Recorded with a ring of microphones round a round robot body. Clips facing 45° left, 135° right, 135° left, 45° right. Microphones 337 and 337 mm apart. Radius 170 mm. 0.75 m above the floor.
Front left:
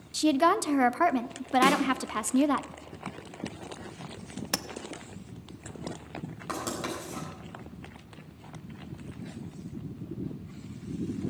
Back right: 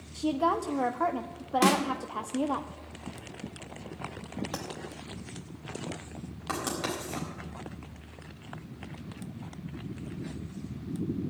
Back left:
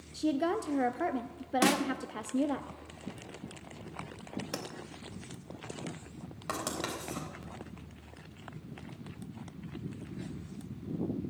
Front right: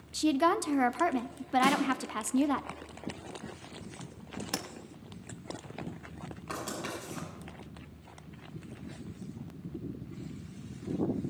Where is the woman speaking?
15° left, 0.6 m.